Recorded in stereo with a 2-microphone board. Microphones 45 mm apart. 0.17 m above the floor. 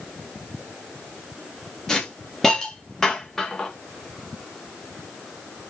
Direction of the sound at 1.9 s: 10° left (ahead or behind).